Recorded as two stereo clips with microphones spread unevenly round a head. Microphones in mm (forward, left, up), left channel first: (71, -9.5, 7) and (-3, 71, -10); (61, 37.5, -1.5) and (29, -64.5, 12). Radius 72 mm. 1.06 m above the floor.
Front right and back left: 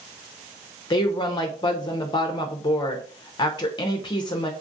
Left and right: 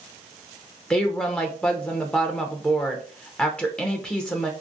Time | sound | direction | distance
0.9 | a woman speaking | straight ahead | 0.6 m